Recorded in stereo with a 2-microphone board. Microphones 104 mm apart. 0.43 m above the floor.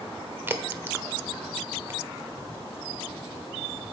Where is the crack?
20° right (ahead or behind), 1.0 m.